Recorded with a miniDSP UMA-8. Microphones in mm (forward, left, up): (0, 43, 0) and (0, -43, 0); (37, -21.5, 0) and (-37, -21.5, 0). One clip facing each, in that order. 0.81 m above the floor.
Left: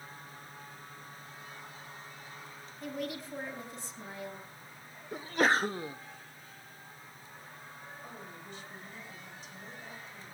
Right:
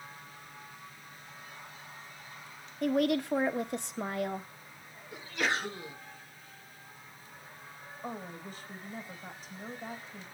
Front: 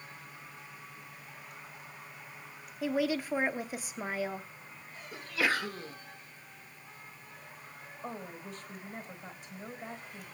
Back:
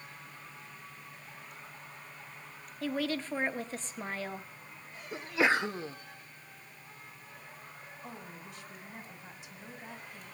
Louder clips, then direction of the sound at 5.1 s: Left 5 dB, back 3 dB; 120° left.